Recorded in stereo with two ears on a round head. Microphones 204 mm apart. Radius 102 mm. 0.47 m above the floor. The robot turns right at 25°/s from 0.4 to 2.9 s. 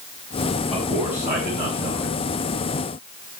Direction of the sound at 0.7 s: Straight behind.